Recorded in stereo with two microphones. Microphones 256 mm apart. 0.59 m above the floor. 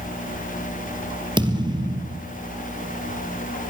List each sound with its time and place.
1.4 s a thud: 15° right (ahead or behind), 3 m